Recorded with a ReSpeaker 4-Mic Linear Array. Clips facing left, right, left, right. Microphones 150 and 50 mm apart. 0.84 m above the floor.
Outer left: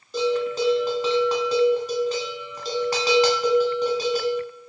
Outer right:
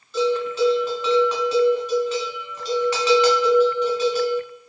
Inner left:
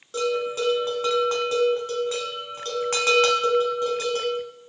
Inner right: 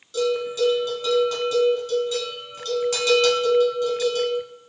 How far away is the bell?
About 1.2 m.